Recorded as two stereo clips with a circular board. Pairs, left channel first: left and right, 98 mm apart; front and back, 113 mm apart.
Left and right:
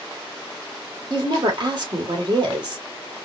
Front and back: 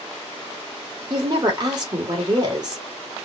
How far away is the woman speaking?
About 2 m.